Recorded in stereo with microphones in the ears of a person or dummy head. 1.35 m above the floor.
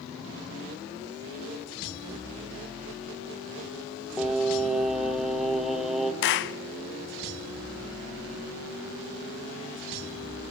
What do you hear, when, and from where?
4.2 s singing: centre (ahead or behind), 1.6 m
6.2 s a clap: 55° left (ahead or behind), 0.6 m